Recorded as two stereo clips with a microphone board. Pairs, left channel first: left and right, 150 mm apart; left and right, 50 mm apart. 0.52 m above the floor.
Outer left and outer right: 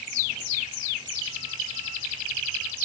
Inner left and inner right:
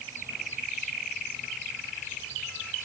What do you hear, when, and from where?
Only background noise.